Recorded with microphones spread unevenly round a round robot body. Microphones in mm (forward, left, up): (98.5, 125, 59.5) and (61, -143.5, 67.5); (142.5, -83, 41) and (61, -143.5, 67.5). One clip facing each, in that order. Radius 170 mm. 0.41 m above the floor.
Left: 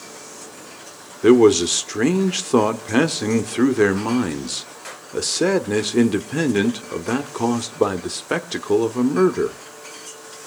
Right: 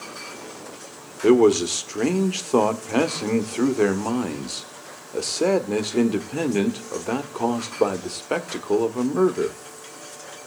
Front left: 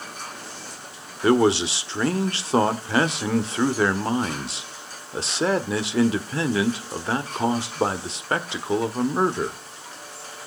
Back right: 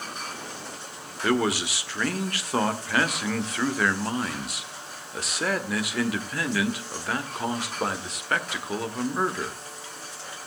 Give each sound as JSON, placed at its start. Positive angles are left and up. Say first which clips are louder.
{"t": 1.2, "sound": "a man speaking", "louder": "left 3 dB, front left 6 dB", "azimuth_deg": 30, "distance_m": 1.4}